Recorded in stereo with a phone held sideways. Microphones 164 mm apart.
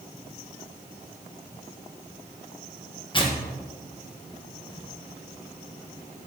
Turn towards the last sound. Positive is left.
turn(degrees=30)  # may be behind; listen again after turning